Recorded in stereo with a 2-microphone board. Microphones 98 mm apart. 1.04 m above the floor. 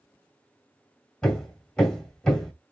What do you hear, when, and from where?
1.2 s hammering: 10° left (ahead or behind), 1.6 m